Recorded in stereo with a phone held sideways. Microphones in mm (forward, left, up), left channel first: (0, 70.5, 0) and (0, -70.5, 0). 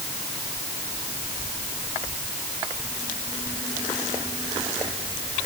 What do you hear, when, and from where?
Only background noise.